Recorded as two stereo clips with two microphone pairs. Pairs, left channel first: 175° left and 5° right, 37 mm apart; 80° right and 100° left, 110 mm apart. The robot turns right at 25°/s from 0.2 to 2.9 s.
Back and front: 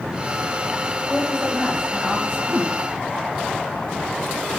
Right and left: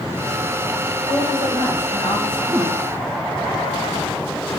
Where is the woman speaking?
85° right, 4.5 m; by 2.4 s 55° right, 4.5 m.